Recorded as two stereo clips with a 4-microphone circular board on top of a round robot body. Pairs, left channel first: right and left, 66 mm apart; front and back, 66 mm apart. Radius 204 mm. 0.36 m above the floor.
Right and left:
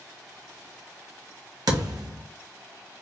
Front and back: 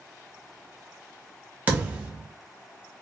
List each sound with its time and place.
1.7 s a thud: 115° left, 1.0 m